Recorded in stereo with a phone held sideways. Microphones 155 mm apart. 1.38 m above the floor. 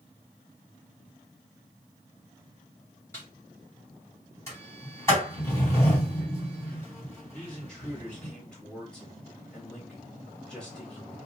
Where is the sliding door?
20° left (ahead or behind), 3 m.